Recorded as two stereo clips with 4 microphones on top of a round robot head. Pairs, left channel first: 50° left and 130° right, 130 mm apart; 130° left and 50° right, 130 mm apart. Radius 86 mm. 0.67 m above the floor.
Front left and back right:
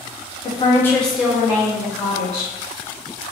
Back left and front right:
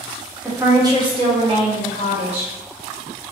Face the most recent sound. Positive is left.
turn(degrees=-80)